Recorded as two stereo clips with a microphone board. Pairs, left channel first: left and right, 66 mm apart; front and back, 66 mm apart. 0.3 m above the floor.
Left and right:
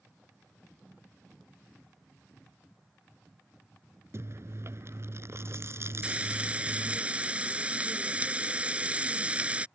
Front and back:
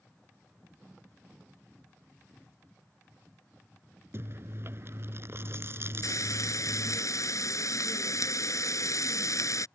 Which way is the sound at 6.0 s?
25° right.